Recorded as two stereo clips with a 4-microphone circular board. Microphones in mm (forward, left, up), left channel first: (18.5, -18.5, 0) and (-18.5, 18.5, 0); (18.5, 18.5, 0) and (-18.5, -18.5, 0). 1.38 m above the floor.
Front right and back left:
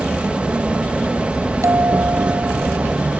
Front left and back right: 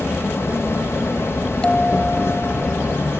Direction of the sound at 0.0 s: 70° left.